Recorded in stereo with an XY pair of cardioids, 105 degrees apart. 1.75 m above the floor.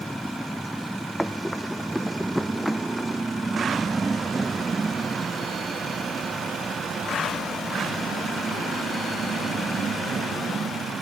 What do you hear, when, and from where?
0.0 s a motorcycle: straight ahead; by 11.0 s 45° right
1.2 s running footsteps: straight ahead